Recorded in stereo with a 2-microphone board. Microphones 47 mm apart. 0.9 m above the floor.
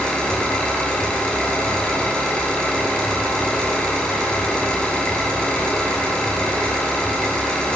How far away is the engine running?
About 5.5 m.